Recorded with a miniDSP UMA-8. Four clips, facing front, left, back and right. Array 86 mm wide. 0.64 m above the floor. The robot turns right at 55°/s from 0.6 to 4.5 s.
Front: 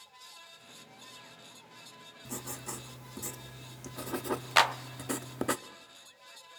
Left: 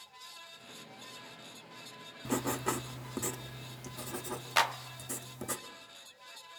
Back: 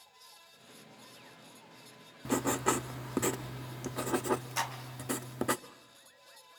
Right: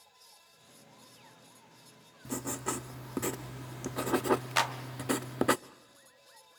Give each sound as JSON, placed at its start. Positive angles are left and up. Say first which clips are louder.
{"t": 2.2, "sound": "writing", "louder": "left 4 dB, back 13 dB", "azimuth_deg": 150, "distance_m": 0.6}
{"t": 4.6, "sound": "a clap", "louder": "left 1 dB, front 10 dB", "azimuth_deg": 5, "distance_m": 0.7}